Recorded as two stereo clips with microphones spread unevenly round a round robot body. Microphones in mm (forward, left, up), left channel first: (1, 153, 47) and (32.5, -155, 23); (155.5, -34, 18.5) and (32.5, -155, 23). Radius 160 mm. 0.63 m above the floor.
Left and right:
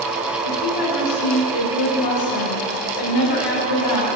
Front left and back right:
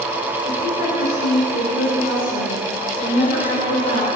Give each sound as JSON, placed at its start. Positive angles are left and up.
{"t": 0.5, "sound": "a woman speaking", "azimuth_deg": 95, "distance_m": 2.0}